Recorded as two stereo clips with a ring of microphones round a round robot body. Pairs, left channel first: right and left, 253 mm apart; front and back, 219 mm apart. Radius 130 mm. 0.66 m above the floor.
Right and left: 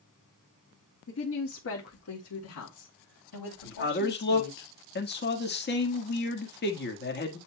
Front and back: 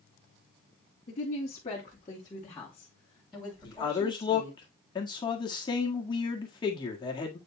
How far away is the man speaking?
About 1.5 m.